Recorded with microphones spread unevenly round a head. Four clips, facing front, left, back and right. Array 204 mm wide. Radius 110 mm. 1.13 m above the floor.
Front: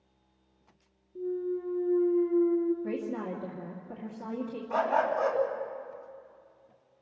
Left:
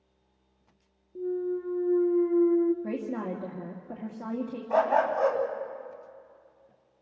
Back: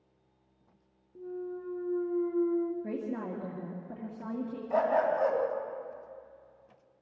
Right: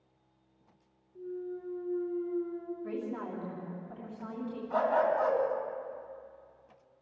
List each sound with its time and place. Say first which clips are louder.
1.1 s a clunk: left 9 dB, front 7 dB; 95° left, 1.0 m
2.8 s a woman speaking: left 4 dB, front 2 dB; 120° left, 2 m
4.7 s a dog barking: left 3 dB, even; 125° left, 3 m